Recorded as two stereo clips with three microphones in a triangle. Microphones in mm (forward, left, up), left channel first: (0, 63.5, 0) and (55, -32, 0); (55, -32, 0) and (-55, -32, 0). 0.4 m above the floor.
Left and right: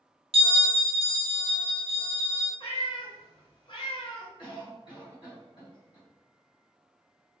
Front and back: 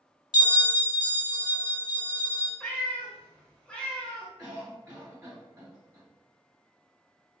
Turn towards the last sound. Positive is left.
turn(degrees=120)